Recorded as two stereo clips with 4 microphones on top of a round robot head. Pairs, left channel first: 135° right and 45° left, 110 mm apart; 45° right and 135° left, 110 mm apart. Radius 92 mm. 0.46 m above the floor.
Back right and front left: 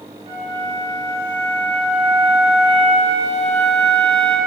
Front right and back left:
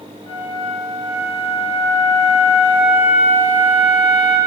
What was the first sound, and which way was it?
A flute, 10° right.